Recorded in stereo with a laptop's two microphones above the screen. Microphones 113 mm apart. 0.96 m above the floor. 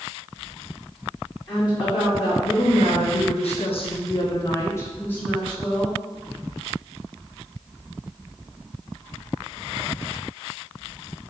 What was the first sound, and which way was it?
A woman speaking, 40° left (ahead or behind).